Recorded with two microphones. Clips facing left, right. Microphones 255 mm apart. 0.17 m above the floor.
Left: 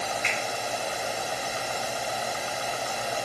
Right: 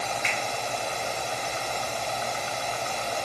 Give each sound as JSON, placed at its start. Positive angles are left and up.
{"t": 0.2, "sound": "a finger snap", "side_deg": 30, "distance_m": 1.2}